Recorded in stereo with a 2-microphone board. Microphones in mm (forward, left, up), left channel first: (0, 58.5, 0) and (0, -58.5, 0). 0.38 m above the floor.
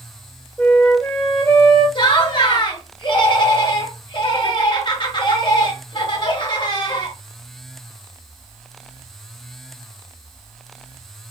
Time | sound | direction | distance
0.6 | a flute | 15° left (ahead or behind) | 1.7 m
1.9 | laughter | 45° left (ahead or behind) | 1.4 m